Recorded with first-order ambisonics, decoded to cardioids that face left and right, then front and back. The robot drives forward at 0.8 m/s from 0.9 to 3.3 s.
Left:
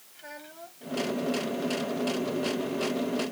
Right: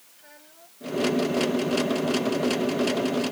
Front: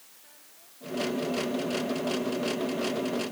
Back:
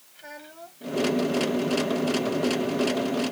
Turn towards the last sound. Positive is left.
turn(degrees=160)